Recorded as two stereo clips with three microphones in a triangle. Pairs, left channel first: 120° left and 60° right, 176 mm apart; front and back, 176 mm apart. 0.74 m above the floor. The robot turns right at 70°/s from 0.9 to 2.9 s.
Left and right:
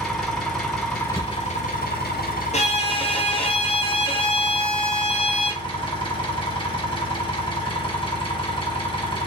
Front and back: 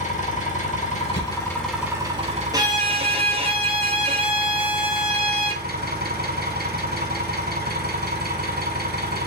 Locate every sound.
0.0 s an engine running: 30° left, 1.3 m; by 9.3 s 170° left, 1.3 m
1.1 s a thud: straight ahead, 2 m; by 1.6 s 30° left, 2 m
2.5 s a violin: 125° left, 0.8 m; by 5.6 s 150° left, 0.8 m